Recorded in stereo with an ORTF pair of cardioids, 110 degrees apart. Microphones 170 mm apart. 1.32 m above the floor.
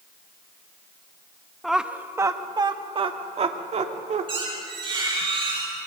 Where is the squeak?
30° right, 9 m.